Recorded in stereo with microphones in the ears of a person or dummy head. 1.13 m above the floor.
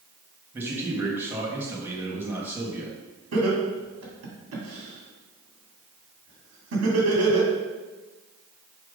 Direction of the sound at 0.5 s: 15° right (ahead or behind).